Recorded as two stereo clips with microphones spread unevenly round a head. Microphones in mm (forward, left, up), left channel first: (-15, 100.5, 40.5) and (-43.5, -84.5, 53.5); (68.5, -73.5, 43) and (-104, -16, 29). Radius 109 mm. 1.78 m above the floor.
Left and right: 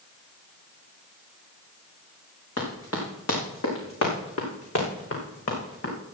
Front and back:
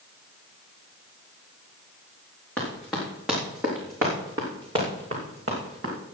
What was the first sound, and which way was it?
Running footsteps, 65° left.